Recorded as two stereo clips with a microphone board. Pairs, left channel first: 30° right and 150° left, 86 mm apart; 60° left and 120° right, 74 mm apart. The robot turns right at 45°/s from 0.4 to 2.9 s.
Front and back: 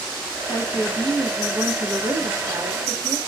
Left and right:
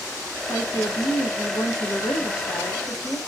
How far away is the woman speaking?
About 0.7 m.